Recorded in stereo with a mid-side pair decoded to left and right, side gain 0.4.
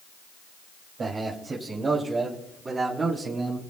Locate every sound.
1.0 s a man speaking: 55° right, 2.5 m; by 3.6 s 35° right, 4.5 m